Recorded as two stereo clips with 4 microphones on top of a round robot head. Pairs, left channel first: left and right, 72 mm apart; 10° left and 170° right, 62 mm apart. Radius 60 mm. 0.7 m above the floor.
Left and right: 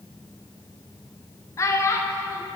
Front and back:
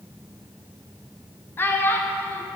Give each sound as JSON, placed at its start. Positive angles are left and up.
{"t": 1.6, "sound": "a child speaking", "azimuth_deg": 55, "distance_m": 0.7}